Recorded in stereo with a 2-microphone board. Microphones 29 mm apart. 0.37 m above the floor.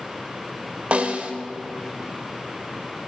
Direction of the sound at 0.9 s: 40° right (ahead or behind).